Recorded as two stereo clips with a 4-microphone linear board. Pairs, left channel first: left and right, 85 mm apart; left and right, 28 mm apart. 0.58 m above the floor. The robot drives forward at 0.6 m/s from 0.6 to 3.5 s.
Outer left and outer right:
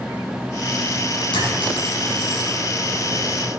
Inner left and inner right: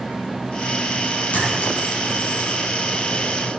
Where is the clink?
80° left, 4.5 m; by 2.5 s 85° left, 4 m.